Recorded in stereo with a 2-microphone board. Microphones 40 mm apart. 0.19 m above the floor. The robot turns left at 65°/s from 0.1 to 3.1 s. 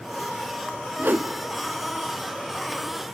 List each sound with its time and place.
1.0 s a whoosh: 60° right (ahead or behind), 0.6 m; by 1.3 s 45° right (ahead or behind), 0.6 m